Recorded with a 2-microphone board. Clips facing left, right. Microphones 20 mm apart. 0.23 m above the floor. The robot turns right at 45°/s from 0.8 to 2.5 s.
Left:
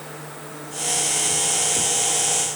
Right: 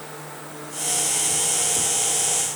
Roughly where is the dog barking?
I don't hear a dog barking.